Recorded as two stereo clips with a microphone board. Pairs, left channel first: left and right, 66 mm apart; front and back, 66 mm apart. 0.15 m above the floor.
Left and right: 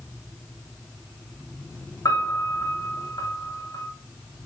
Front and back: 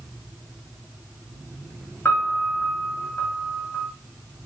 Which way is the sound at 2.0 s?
60° left.